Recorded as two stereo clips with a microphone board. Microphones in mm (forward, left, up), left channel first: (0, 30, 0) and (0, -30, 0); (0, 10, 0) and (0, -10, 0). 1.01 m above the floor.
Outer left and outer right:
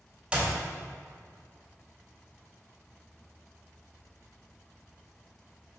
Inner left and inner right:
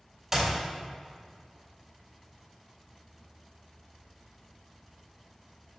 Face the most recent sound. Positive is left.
turn(degrees=-20)  # may be behind; listen again after turning